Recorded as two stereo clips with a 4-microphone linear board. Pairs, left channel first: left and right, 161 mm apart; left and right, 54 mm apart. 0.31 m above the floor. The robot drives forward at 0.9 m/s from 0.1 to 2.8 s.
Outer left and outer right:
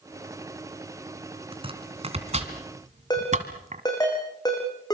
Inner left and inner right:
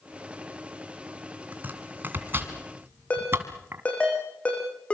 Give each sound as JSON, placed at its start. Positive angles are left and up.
{"t": 1.5, "sound": "chopping", "side_deg": -35, "distance_m": 3.0}
{"t": 3.1, "sound": "a ringtone", "side_deg": 25, "distance_m": 7.0}